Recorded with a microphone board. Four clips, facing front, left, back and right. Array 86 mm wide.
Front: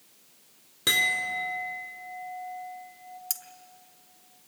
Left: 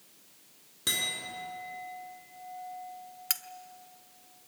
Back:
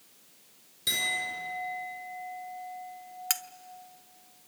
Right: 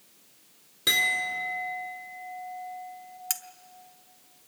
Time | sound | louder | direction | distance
0.9 | a clink | right 10 dB, front 5 dB | 10° right | 4.5 m
3.3 | cutlery clinking | even, back 9 dB | 160° left | 0.7 m